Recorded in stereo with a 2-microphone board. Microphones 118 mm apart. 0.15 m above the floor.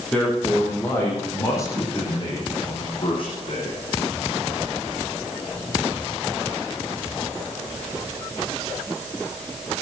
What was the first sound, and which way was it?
A man speaking, 5° left (ahead or behind).